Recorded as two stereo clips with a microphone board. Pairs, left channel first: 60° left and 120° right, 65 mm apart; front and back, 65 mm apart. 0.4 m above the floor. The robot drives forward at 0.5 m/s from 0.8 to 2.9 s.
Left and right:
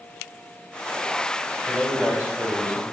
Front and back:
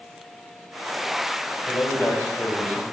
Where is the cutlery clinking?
No cutlery clinking in this recording.